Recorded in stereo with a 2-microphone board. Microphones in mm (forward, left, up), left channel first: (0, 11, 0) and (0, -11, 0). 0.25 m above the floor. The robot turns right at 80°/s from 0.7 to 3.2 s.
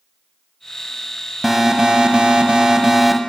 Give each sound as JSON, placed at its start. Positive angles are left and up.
{"t": 1.4, "sound": "an alarm", "azimuth_deg": -155, "distance_m": 0.9}